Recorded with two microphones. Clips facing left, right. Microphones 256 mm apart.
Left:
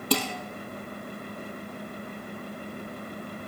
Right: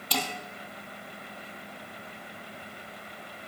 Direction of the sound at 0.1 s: 60° left (ahead or behind).